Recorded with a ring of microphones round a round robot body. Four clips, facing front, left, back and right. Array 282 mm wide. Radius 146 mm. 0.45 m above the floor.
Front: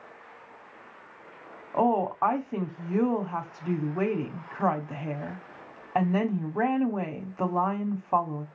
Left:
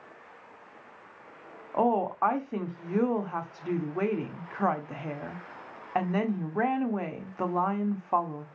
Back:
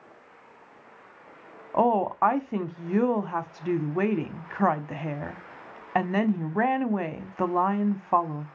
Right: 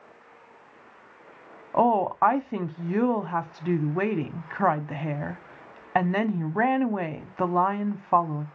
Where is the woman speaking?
120° right, 1.1 m.